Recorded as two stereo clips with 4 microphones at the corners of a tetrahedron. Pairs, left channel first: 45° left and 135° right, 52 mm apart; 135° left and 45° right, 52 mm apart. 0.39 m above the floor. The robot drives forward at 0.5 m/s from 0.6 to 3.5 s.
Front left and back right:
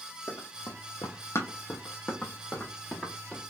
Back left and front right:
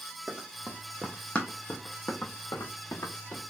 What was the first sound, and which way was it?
Running footsteps, 30° left.